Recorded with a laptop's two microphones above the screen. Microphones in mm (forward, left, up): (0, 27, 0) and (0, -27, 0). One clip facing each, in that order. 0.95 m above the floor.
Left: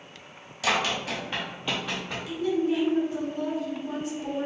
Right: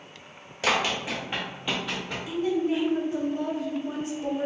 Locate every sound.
0.6 s running footsteps: 35° right (ahead or behind), 1.1 m; by 2.2 s 5° left (ahead or behind), 2 m
2.3 s a woman speaking: 30° right (ahead or behind), 0.8 m